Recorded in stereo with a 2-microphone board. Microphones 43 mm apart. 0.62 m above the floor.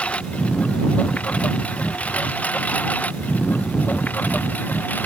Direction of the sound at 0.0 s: 30° left (ahead or behind).